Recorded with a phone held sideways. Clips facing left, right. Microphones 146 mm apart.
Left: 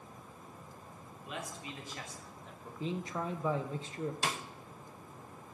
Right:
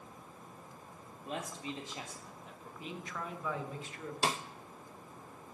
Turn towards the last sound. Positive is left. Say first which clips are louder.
# right 9 dB
turn(degrees=-30)  # may be behind; listen again after turning